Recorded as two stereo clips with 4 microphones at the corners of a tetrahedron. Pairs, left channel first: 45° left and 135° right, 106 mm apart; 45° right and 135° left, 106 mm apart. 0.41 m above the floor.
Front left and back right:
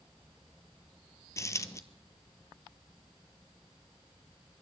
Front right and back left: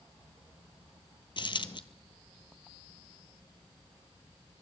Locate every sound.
1.4 s a dropped coin: 10° right, 0.7 m